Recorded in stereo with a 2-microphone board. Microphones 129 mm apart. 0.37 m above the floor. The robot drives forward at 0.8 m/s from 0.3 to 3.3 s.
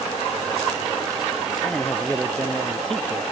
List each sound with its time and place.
1.6 s a man speaking: 5° left (ahead or behind)